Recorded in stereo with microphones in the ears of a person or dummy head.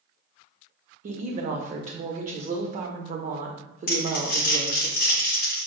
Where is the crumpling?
60° left (ahead or behind), 0.6 m.